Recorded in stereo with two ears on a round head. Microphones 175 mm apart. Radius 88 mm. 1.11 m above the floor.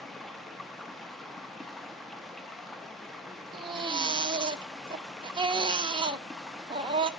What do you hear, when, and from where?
0.0 s running water: centre (ahead or behind), 0.7 m
3.5 s a baby crying: 25° right (ahead or behind), 0.8 m